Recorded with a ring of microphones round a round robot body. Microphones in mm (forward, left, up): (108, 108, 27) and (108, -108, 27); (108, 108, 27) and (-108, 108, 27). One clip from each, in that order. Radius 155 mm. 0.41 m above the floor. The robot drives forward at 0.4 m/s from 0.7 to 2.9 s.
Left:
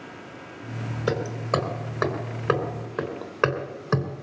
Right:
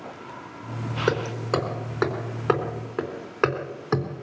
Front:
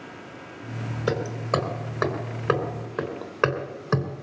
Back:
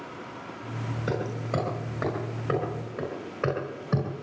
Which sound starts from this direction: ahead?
Hammering, at 1.1 s.